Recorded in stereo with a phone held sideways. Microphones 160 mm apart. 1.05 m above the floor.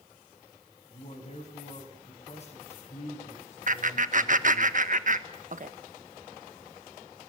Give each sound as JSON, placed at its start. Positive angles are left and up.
{"t": 0.9, "sound": "a man speaking", "side_deg": 45, "distance_m": 6.0}
{"t": 3.7, "sound": "laughter", "side_deg": -55, "distance_m": 1.3}